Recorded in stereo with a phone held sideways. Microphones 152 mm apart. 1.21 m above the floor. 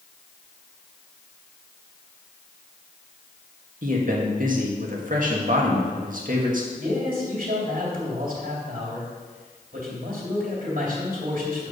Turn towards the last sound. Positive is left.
turn(degrees=-70)  # may be behind; listen again after turning